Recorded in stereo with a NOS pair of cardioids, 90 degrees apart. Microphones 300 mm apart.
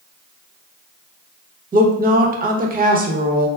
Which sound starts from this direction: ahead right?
A woman speaking, at 1.7 s.